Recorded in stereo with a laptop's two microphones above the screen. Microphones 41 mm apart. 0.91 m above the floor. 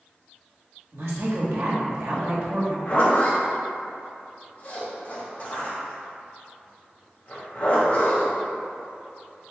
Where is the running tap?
I don't hear a running tap.